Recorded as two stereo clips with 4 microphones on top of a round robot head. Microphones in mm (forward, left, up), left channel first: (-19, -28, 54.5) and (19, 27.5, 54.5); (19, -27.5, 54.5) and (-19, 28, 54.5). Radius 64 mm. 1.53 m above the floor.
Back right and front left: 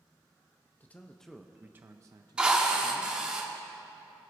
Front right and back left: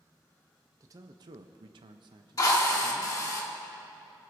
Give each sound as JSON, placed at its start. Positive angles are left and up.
{"t": 0.8, "sound": "a man speaking", "azimuth_deg": 170, "distance_m": 0.7}
{"t": 2.4, "sound": "a drill", "azimuth_deg": -20, "distance_m": 1.3}